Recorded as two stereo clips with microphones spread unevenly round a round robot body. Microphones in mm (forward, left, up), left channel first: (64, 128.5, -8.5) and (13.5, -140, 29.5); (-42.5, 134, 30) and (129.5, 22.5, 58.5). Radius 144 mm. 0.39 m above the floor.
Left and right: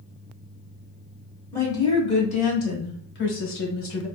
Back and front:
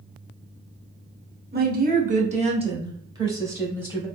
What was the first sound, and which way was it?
A woman speaking, 5° left.